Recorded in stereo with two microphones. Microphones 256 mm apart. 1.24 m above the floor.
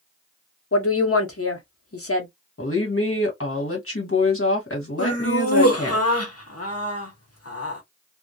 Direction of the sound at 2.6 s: 55° left (ahead or behind).